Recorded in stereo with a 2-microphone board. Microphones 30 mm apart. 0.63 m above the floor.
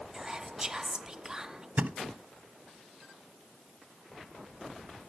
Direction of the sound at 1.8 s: 60° right (ahead or behind).